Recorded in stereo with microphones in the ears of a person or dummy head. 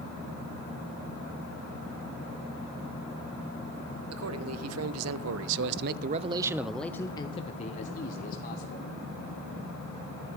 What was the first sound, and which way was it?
A man speaking, 85° right.